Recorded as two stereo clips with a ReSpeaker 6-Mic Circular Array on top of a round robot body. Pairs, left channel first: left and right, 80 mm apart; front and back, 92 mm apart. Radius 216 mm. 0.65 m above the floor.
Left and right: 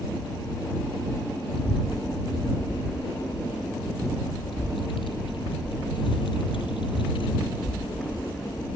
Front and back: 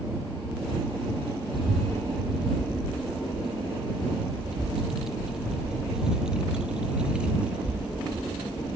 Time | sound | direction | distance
1.5 | a child speaking | 90° left | ?